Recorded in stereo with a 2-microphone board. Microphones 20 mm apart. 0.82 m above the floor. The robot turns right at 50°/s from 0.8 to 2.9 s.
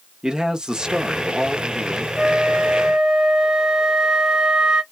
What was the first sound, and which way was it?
A man speaking, 115° right.